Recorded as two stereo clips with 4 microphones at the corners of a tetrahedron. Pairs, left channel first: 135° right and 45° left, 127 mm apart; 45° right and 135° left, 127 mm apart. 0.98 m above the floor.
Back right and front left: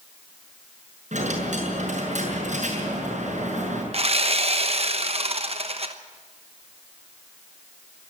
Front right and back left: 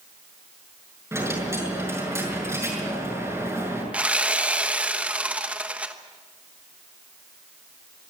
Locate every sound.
1.1 s a dropped coin: 65° left, 6.5 m
3.9 s sawing: 60° left, 1.0 m